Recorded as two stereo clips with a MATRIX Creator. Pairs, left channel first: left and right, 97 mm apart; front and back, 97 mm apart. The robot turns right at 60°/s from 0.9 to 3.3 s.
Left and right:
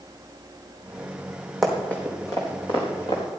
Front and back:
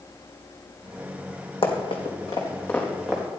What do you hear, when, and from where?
1.6 s running footsteps: straight ahead, 3 m; by 3.4 s 105° left, 5 m